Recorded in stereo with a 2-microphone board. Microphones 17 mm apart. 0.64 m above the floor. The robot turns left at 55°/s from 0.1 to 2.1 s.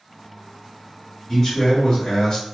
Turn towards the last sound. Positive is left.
turn(degrees=100)